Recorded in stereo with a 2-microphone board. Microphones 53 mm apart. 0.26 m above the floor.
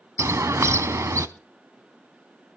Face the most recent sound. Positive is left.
turn(degrees=-65)  # may be behind; listen again after turning